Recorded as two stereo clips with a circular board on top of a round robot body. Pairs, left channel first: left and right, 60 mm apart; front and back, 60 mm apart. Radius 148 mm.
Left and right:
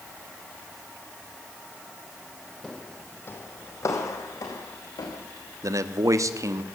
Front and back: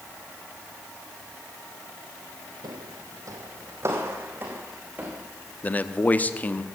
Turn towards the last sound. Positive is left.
turn(degrees=-65)